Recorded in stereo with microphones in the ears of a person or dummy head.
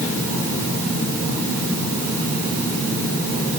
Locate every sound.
Only background noise.